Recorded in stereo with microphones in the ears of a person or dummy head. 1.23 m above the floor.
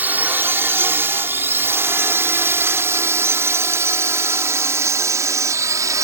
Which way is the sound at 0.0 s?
10° right (ahead or behind).